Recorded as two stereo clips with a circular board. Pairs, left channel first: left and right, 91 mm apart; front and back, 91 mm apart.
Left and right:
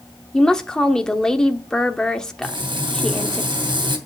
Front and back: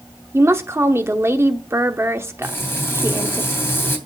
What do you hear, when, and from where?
0.3 s a woman speaking: 165° left, 1.0 m
2.4 s frying: 65° right, 2.5 m